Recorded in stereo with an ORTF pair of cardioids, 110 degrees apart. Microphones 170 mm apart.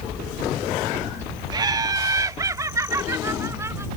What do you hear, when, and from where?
1.5 s laughter: 25° right; by 3.9 s 15° right